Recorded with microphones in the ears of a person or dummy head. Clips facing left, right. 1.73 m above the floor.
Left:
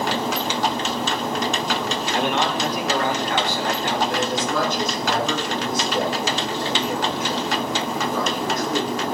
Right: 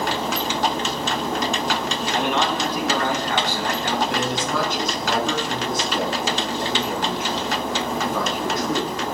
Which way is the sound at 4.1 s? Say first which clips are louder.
Left 1 dB; 50° right (ahead or behind).